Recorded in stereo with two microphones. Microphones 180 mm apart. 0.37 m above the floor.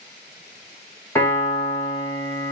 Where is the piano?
15° left (ahead or behind), 1.7 m.